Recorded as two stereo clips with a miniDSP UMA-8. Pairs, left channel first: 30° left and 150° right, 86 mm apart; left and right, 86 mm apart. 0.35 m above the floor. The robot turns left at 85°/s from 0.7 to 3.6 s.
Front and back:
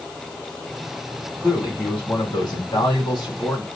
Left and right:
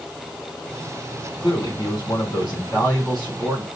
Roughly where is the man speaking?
Behind left.